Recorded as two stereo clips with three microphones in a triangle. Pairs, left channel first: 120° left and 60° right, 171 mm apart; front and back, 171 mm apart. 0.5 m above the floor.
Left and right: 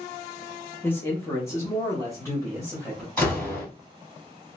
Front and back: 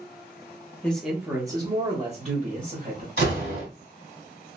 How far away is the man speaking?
About 0.8 m.